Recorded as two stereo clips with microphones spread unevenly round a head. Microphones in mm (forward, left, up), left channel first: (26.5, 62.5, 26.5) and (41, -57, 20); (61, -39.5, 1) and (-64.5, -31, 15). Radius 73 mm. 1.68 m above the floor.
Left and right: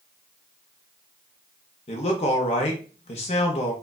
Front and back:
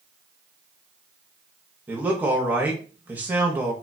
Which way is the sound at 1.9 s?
110° left.